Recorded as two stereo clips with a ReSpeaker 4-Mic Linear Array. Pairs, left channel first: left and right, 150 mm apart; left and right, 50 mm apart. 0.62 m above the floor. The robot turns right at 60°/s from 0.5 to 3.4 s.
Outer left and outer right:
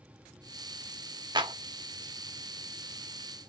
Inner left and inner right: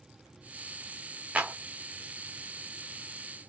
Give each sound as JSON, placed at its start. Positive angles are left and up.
{"t": 1.4, "sound": "a clap", "side_deg": -30, "distance_m": 0.6}